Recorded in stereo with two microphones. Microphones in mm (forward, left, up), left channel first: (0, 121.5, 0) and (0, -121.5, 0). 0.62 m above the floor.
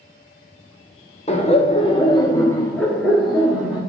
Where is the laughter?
25° left (ahead or behind), 1.0 m; by 3.8 s 5° right (ahead or behind), 1.7 m.